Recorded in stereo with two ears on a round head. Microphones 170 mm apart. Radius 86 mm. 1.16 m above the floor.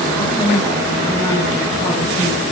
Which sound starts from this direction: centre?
A woman speaking, at 0.1 s.